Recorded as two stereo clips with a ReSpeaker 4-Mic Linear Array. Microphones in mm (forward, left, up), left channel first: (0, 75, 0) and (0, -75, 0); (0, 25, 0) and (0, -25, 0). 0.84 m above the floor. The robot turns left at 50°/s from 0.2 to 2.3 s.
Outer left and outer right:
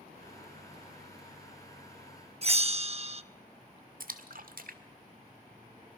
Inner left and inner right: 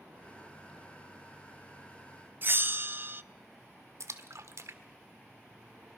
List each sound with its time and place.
2.4 s a bell: 45° right (ahead or behind), 0.5 m
4.0 s a splash: 70° right (ahead or behind), 1.5 m